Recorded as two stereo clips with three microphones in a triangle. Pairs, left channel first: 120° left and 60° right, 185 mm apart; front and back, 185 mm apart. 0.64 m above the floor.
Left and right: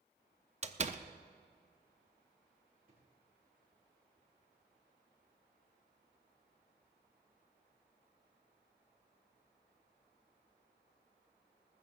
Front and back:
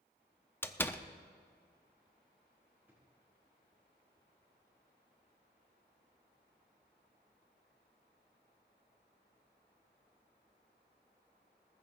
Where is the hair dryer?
No hair dryer in this recording.